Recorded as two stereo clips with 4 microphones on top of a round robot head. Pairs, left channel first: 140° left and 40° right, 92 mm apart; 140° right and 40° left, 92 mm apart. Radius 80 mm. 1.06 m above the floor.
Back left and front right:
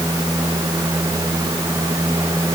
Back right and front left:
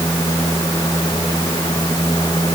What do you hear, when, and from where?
Only background noise.